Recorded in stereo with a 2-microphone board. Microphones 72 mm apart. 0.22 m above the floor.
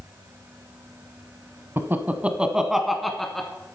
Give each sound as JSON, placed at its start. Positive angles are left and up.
{"t": 1.8, "sound": "laughter", "side_deg": -30, "distance_m": 1.2}